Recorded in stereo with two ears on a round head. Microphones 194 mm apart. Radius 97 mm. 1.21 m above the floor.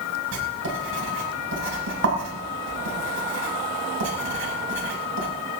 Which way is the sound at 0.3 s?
65° right (ahead or behind).